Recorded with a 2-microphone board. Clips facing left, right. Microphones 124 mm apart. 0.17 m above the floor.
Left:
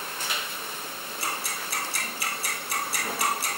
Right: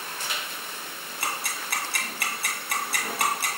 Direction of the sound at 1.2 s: 65° right (ahead or behind).